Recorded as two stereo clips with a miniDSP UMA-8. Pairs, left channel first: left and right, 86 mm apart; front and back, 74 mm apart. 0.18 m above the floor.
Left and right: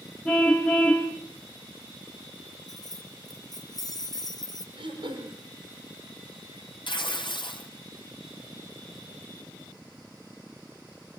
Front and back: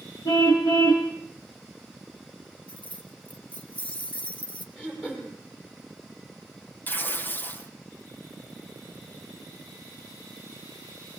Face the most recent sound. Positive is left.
turn(degrees=65)